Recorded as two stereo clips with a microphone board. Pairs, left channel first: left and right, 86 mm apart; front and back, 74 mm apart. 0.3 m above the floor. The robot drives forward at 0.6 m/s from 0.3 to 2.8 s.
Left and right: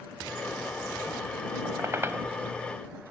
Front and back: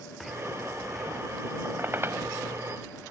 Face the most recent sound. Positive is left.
turn(degrees=-155)